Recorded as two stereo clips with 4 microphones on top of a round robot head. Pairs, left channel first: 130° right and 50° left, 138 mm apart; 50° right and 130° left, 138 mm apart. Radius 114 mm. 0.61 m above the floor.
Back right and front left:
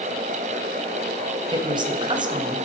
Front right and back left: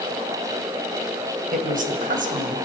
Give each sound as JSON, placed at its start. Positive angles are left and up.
{"t": 1.5, "sound": "a woman speaking", "azimuth_deg": 110, "distance_m": 3.5}